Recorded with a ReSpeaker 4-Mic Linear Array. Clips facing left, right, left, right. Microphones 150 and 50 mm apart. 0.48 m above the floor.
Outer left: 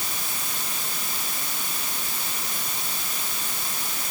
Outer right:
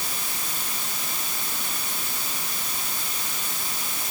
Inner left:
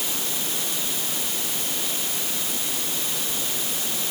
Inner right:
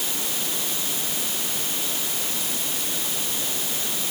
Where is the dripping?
I don't hear dripping.